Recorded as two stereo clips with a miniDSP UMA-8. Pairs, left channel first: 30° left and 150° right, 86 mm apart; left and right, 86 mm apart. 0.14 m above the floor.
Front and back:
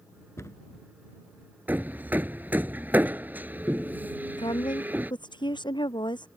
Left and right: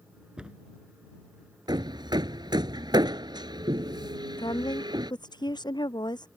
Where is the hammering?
85° right.